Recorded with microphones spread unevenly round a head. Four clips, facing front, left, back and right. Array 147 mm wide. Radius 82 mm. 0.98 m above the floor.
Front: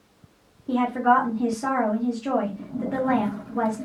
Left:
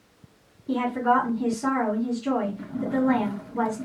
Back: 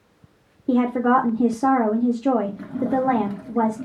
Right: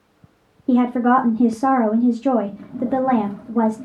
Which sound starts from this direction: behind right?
A woman speaking, at 0.7 s.